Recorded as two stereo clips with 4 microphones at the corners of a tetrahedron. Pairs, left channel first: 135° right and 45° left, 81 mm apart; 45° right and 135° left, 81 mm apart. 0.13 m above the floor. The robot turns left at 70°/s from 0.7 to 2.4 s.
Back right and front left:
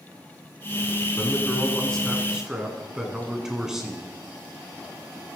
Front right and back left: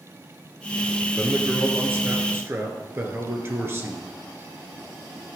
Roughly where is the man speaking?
Behind right.